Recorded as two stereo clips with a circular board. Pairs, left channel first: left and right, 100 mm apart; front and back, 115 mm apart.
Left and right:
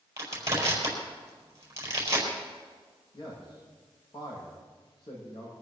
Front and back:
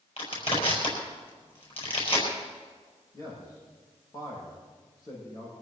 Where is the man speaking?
55° left, 7 m.